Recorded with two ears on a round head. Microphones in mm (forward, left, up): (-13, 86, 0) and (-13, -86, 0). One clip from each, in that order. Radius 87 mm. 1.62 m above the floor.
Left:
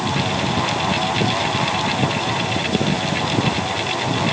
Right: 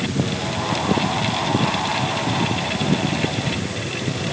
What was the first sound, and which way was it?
Only background noise.